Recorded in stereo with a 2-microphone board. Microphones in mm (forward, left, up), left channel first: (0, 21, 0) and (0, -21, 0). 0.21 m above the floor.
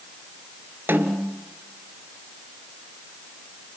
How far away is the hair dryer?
I don't hear a hair dryer.